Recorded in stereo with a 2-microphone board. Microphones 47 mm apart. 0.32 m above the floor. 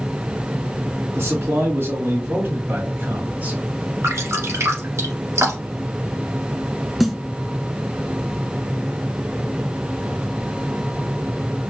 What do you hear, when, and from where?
1.1 s a man speaking: 65° right (ahead or behind), 2.5 m; by 3.6 s 30° right (ahead or behind), 1.2 m
4.0 s dripping: 80° right, 1.7 m
7.0 s a snare drum: 5° right (ahead or behind), 0.5 m